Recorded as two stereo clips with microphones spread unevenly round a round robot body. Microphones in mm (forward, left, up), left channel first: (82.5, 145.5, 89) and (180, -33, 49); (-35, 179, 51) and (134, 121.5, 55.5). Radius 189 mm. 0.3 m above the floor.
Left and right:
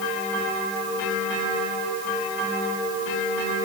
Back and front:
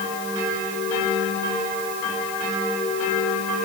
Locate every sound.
Only background noise.